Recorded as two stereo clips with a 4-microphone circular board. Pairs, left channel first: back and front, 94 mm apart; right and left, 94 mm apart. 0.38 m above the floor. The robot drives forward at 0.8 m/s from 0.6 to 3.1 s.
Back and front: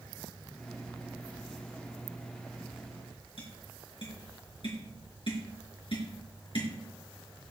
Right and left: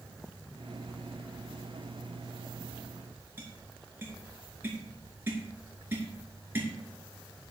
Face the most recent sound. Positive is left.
turn(degrees=155)